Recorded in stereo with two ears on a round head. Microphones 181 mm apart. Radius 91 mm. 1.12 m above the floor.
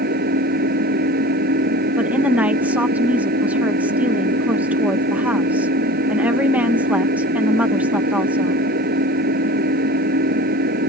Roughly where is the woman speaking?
Centre.